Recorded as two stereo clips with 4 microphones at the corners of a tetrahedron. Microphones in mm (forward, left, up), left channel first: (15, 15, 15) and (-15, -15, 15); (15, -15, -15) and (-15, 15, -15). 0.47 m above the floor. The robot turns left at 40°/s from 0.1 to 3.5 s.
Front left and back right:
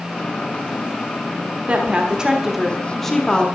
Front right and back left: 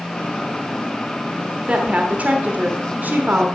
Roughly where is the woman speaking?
Behind.